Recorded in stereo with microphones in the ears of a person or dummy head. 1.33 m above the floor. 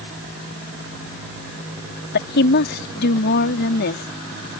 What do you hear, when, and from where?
2.1 s a woman speaking: 50° left (ahead or behind)